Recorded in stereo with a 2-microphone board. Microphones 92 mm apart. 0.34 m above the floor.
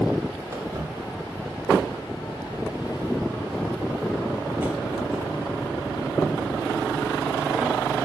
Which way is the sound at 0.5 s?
40° right (ahead or behind).